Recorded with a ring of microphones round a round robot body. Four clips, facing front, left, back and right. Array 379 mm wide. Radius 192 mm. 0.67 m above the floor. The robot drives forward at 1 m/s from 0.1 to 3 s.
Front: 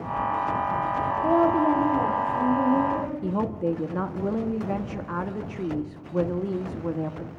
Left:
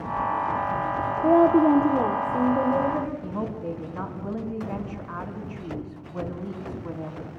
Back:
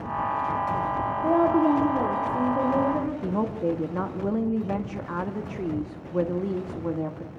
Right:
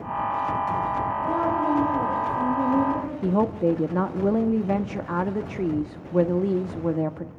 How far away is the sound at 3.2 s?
About 1.0 m.